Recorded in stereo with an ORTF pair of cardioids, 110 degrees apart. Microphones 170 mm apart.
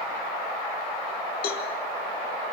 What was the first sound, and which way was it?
A cowbell, 60° left.